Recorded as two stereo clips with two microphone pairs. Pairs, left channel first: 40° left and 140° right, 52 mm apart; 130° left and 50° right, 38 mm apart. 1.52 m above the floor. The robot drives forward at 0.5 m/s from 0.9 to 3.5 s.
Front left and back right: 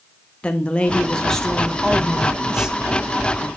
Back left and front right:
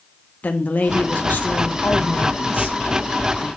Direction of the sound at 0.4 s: 105° left.